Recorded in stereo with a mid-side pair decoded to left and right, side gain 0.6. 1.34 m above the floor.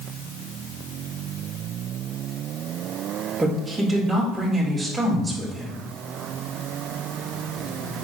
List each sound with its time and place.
3.4 s a woman speaking: 5° right, 4 m